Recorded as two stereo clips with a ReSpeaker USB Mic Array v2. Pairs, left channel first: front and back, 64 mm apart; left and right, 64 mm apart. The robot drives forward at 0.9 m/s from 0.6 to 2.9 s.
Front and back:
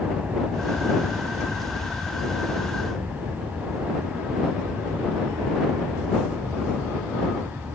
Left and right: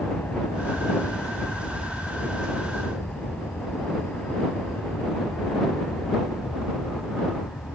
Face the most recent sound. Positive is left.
turn(degrees=135)